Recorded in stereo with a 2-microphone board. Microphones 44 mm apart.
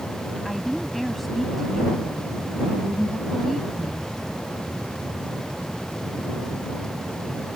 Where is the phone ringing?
No phone ringing in this recording.